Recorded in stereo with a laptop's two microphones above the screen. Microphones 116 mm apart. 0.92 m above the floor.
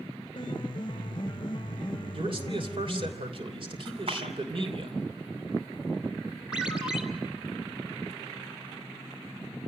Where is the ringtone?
10° right (ahead or behind), 2.5 m.